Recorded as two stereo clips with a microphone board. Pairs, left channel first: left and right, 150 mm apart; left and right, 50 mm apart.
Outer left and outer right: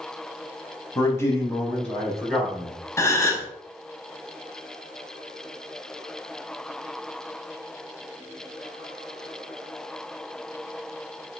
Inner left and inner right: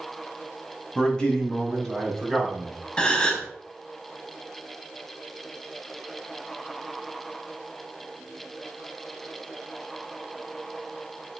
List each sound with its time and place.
0.9 s a man speaking: 20° left (ahead or behind), 1.0 m; by 2.8 s 5° right (ahead or behind), 1.1 m
3.0 s a gasp: 20° left (ahead or behind), 0.6 m